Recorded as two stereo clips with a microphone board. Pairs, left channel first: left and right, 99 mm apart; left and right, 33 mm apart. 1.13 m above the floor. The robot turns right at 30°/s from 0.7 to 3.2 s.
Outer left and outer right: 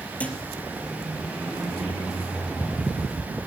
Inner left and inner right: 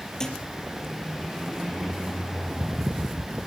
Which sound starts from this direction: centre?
A thud, at 0.2 s.